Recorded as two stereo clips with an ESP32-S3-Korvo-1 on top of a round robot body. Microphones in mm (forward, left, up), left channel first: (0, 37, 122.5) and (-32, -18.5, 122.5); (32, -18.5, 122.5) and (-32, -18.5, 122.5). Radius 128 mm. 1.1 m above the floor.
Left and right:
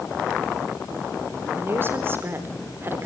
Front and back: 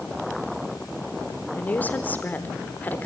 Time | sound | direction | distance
1.6 | a woman speaking | 65° right | 4 m